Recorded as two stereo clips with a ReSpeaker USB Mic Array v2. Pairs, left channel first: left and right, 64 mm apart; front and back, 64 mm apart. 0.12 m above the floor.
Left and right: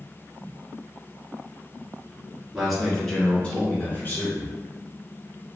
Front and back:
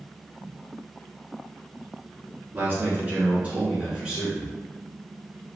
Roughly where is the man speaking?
Behind.